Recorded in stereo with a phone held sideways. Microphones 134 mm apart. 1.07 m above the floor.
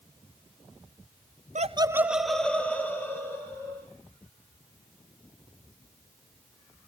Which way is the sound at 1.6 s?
65° right (ahead or behind).